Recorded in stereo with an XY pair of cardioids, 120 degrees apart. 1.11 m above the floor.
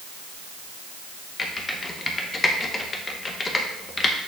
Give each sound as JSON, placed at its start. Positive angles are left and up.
{"t": 1.4, "sound": "typing on a keyboard", "azimuth_deg": 25, "distance_m": 1.0}